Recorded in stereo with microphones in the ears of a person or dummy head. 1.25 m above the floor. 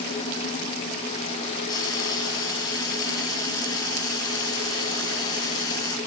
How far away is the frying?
About 2.5 m.